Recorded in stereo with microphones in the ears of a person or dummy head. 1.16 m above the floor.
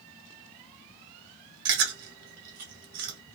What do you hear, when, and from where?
1.6 s chewing: 75° right (ahead or behind), 2.0 m